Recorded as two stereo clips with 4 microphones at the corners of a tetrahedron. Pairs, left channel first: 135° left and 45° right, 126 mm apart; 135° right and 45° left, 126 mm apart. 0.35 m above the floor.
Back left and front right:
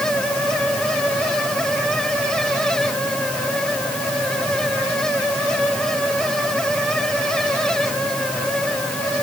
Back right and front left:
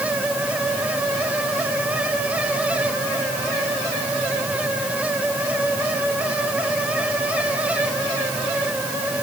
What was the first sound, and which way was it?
Only background noise.